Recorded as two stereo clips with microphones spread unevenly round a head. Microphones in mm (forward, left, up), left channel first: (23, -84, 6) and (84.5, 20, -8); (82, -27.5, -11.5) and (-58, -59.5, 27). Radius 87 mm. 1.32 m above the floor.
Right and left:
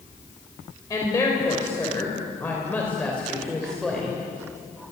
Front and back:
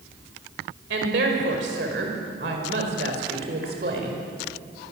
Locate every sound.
0.9 s a woman speaking: 170° left, 6 m; by 4.9 s 145° left, 5.5 m